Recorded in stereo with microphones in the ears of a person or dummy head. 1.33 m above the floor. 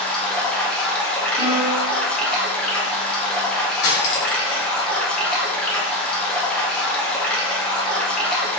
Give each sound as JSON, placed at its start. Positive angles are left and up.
{"t": 0.0, "sound": "running water", "side_deg": 10, "distance_m": 0.8}
{"t": 1.4, "sound": "a piano", "side_deg": -40, "distance_m": 1.6}
{"t": 3.8, "sound": "cutlery clinking", "side_deg": 60, "distance_m": 1.0}